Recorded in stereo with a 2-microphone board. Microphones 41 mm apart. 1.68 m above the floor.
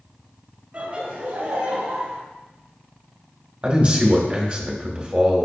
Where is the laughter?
30° right (ahead or behind), 1.6 m; by 2.2 s 70° right (ahead or behind), 1.1 m.